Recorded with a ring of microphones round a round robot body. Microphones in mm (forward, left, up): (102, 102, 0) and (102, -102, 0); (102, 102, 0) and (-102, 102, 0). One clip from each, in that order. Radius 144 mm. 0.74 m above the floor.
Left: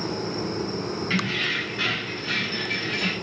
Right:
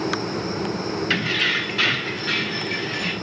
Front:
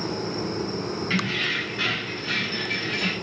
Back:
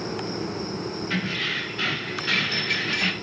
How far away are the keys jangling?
About 1.5 m.